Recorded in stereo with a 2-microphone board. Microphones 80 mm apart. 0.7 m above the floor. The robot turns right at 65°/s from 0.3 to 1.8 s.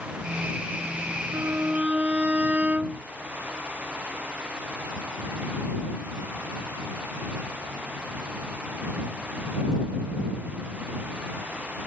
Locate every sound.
1.3 s a violin: 50° right; by 3.0 s 20° right